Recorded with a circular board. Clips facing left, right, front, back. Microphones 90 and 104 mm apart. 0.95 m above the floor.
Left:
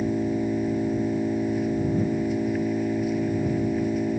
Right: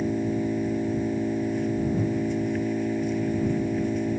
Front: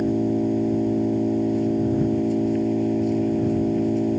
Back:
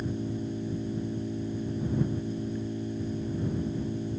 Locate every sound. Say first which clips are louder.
0.0 s an engine running: left 1 dB, front 12 dB; 5° left